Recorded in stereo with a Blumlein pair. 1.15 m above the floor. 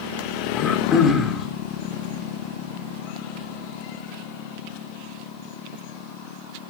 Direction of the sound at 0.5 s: 25° left.